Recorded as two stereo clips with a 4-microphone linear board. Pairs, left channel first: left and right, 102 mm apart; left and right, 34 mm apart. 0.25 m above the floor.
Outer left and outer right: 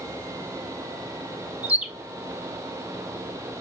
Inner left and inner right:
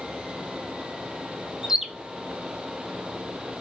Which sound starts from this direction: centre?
A bird, at 1.6 s.